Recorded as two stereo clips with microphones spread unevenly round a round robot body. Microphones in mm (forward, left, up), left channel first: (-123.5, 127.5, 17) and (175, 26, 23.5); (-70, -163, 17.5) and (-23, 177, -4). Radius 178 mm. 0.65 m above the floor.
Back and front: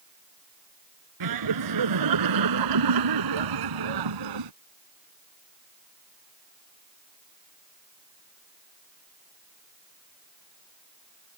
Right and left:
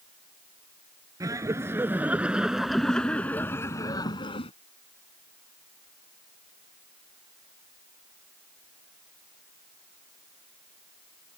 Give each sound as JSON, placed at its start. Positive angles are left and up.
{"t": 1.2, "sound": "laughter", "azimuth_deg": 0}